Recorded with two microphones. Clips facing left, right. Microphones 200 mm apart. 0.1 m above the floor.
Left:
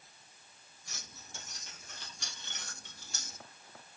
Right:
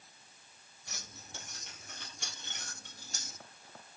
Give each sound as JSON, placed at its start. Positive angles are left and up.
{"t": 0.9, "sound": "keys jangling", "side_deg": -65, "distance_m": 2.5}